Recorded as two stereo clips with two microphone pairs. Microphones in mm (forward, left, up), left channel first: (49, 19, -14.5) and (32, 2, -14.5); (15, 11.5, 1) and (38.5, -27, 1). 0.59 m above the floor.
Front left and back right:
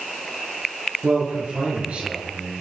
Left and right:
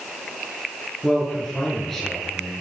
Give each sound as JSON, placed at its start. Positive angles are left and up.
{"t": 1.0, "sound": "a man speaking", "azimuth_deg": -155, "distance_m": 9.5}